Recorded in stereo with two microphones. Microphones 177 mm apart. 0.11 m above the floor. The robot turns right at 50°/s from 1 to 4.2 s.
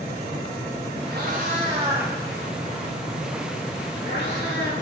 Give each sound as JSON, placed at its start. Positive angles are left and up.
{"t": 1.1, "sound": "a cat meowing", "side_deg": -70, "distance_m": 4.0}